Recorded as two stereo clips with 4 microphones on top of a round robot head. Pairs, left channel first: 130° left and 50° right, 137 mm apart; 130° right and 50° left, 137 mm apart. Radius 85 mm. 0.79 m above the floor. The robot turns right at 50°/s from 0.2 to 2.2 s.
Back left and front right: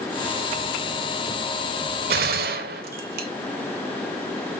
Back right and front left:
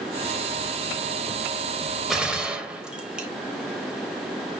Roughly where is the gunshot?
Ahead right.